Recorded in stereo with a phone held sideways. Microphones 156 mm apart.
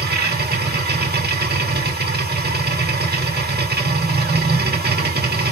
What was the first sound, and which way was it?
A machine running, 85° right.